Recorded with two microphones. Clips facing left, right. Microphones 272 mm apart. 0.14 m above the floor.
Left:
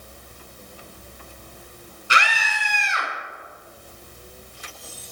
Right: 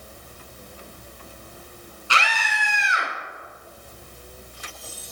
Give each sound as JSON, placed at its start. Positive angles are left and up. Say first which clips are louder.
{"t": 2.1, "sound": "a scream", "louder": "left 1 dB", "side_deg": 20, "distance_m": 1.1}